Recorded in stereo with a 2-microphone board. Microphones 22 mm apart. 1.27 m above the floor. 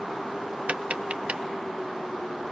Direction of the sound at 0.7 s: 65° right (ahead or behind).